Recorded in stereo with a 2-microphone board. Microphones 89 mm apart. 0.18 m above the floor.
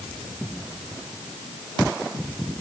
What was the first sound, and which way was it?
Only background noise.